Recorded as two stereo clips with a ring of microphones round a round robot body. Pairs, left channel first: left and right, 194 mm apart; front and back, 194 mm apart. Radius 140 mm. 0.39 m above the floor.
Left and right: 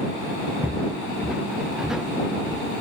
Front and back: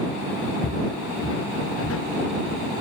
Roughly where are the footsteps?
Ahead.